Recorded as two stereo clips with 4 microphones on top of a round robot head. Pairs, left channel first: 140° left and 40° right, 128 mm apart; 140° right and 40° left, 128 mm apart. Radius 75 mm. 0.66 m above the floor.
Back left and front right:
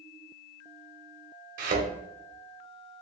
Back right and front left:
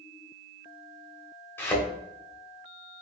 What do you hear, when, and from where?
1.6 s a thud: 65° right, 1.0 m